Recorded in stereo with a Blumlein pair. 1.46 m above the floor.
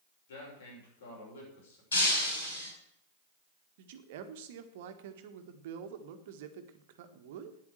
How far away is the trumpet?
No trumpet in this recording.